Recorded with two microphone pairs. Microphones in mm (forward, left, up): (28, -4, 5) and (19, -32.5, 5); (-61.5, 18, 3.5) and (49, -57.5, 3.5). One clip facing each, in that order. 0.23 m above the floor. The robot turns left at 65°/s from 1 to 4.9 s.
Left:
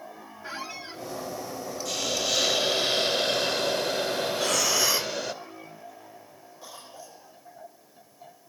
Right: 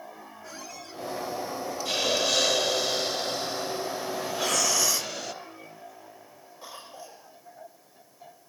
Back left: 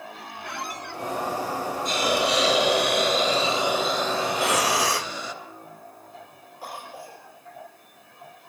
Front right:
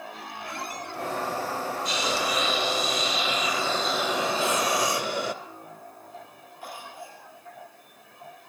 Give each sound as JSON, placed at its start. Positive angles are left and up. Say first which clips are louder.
{"t": 0.4, "sound": "a squeak", "louder": "left 7 dB, back left 2 dB", "azimuth_deg": 125, "distance_m": 2.0}
{"t": 1.9, "sound": "a hiss", "louder": "right 3 dB, back left 7 dB", "azimuth_deg": -170, "distance_m": 2.0}
{"t": 4.3, "sound": "breathing", "louder": "right 1 dB, back left 2 dB", "azimuth_deg": 175, "distance_m": 0.5}
{"t": 6.6, "sound": "a cough", "louder": "right 2 dB, back left 2 dB", "azimuth_deg": -160, "distance_m": 5.5}